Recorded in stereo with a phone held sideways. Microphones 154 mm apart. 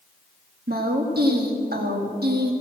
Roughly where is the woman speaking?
Right.